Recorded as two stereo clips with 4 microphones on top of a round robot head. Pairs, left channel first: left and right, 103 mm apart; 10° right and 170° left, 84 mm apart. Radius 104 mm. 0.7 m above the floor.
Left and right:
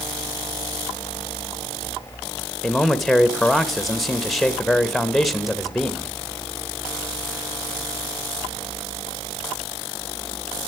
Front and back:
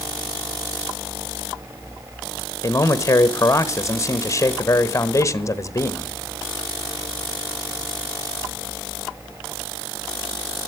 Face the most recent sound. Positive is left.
turn(degrees=5)